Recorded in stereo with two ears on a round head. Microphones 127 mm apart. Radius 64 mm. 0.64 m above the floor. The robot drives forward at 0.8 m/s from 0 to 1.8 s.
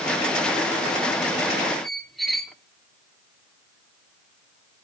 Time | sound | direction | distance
1.8 | a squeak | centre (ahead or behind) | 0.8 m